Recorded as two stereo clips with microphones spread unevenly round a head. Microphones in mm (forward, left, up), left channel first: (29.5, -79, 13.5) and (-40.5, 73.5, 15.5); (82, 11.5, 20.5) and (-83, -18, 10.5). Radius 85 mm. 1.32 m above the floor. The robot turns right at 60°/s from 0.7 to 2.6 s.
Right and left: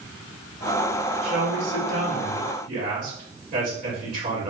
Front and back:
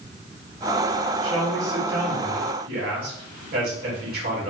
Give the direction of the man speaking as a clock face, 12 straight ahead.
10 o'clock.